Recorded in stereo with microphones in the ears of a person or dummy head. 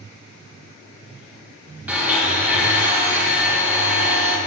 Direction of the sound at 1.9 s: 5° right (ahead or behind).